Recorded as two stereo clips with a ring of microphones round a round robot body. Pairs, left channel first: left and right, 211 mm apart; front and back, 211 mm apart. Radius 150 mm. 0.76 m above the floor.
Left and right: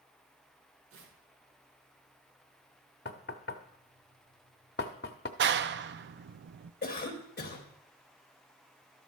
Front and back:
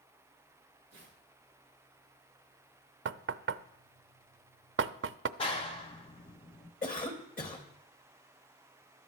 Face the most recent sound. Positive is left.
turn(degrees=45)